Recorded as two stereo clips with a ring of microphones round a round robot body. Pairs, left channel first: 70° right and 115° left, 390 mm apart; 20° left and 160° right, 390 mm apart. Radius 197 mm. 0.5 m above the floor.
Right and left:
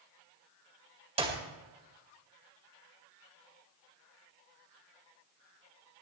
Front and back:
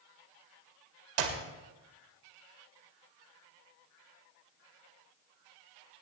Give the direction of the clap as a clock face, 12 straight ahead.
6 o'clock.